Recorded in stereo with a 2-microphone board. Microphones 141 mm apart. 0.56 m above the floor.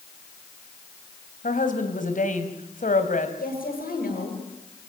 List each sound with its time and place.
1.4 s a woman speaking: 65° left (ahead or behind), 3.5 m
3.4 s a woman speaking: 80° left, 10 m